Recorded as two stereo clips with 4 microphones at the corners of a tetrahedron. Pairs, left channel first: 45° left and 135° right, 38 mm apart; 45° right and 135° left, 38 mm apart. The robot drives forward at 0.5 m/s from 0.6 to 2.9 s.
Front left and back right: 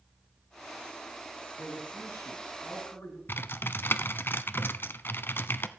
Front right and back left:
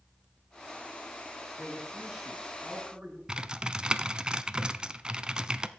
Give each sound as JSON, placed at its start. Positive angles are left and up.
{"t": 1.6, "sound": "a man speaking", "azimuth_deg": 60, "distance_m": 5.5}
{"t": 3.3, "sound": "typing on a keyboard", "azimuth_deg": 65, "distance_m": 0.7}